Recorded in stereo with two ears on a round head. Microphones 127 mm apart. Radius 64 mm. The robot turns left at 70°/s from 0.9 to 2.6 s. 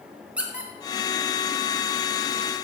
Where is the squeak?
10° right (ahead or behind), 1.8 m.